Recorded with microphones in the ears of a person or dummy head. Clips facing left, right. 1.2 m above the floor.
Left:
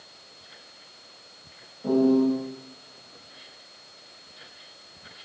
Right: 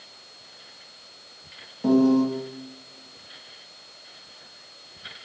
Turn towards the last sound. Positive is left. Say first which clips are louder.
# right 2 dB
turn(degrees=-85)